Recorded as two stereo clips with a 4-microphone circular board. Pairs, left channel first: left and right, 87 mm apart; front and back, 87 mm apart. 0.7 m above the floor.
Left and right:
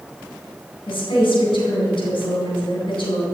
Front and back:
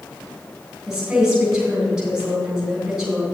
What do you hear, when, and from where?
0.9 s a woman speaking: 95° left, 3.5 m